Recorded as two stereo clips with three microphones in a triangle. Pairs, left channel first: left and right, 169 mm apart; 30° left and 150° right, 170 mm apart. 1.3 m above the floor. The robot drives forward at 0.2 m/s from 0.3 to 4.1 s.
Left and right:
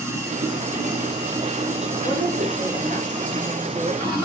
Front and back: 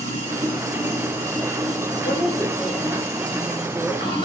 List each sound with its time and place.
0.0 s running water: 20° right, 2.5 m; by 4.3 s 30° right, 1.7 m
2.0 s a woman speaking: 50° right, 1.4 m; by 4.1 s 70° right, 1.2 m